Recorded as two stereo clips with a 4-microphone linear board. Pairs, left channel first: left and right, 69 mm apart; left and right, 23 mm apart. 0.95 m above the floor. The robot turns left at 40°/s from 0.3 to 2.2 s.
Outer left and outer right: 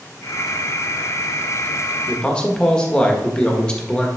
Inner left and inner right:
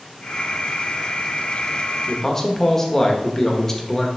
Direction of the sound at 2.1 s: 15° left (ahead or behind).